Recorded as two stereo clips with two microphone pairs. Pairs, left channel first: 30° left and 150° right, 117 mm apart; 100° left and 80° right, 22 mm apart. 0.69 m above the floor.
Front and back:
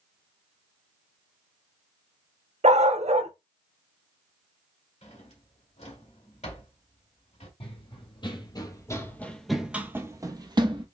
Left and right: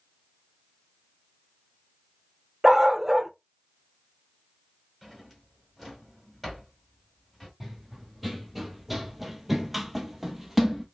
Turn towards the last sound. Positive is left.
turn(degrees=-160)